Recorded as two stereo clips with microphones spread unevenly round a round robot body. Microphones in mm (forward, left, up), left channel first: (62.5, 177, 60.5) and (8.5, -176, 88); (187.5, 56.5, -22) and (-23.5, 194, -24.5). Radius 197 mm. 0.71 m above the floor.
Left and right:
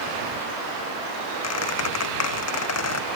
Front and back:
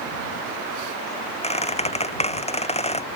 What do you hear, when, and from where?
1.4 s a squeak: 35° left